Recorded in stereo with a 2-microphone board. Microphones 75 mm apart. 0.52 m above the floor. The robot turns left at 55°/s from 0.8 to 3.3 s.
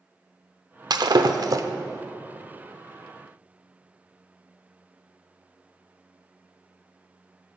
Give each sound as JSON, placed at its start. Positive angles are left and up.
{"t": 0.9, "sound": "breaking glass", "side_deg": -60, "distance_m": 0.6}